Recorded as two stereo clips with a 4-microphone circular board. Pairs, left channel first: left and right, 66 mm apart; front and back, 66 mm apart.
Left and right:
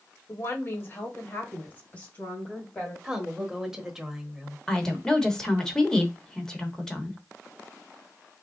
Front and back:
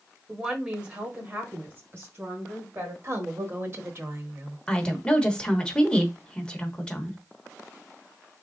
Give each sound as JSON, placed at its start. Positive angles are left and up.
{"t": 0.3, "sound": "a woman speaking", "azimuth_deg": 100, "distance_m": 1.5}
{"t": 3.0, "sound": "a woman speaking", "azimuth_deg": -165, "distance_m": 1.0}
{"t": 4.7, "sound": "a woman speaking", "azimuth_deg": 35, "distance_m": 1.0}